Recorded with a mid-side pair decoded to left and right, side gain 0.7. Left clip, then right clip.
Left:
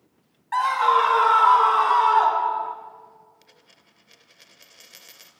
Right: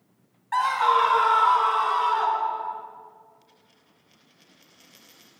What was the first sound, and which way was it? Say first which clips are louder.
A scream: left 2 dB; 10° left.